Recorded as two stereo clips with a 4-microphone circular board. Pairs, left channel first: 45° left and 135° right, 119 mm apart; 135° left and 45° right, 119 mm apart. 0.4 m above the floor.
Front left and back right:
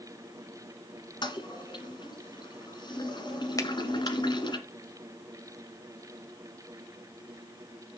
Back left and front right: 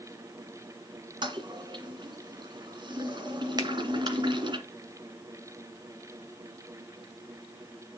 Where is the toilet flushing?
Straight ahead, 1.9 m.